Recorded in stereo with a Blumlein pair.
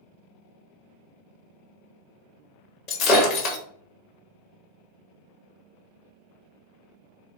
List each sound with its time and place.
2.9 s breaking glass: 35° left, 1.2 m